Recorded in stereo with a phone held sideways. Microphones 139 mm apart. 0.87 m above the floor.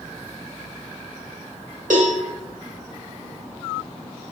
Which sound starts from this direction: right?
A cowbell, at 1.9 s.